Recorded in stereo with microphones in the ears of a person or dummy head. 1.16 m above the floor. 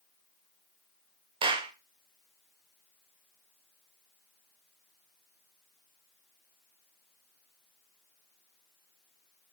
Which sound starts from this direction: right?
A clap, at 1.4 s.